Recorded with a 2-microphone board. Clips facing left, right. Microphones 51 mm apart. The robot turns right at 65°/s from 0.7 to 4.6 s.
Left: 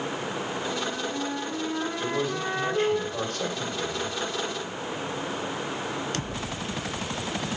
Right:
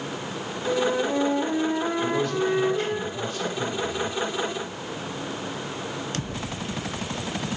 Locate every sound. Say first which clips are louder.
0.7 s a flute: right 7 dB; 95° right, 0.7 m; by 3.0 s 50° left, 0.7 m
2.0 s a man speaking: right 4 dB; 10° right, 1.7 m; by 4.2 s 135° left, 1.7 m